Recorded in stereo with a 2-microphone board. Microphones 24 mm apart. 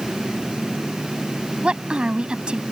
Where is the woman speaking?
50° right (ahead or behind).